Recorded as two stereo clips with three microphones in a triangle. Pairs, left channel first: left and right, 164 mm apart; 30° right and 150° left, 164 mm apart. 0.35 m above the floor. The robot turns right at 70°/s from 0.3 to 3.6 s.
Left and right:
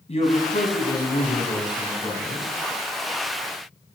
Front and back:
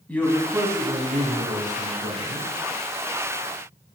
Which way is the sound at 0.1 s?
50° left.